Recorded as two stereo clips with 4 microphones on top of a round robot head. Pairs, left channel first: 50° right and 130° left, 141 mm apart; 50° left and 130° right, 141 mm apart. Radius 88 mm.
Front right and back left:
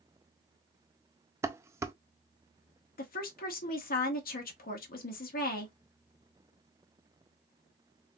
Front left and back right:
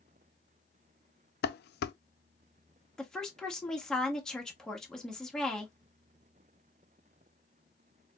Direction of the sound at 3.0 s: 35° right.